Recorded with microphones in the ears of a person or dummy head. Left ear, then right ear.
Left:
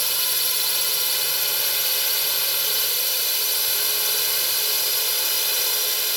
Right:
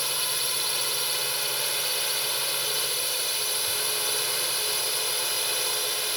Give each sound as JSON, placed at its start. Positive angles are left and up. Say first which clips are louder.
{"t": 0.0, "sound": "a drone", "louder": "left 4 dB", "side_deg": 20}